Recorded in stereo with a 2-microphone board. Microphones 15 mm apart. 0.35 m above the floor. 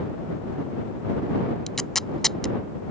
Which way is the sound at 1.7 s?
30° left (ahead or behind).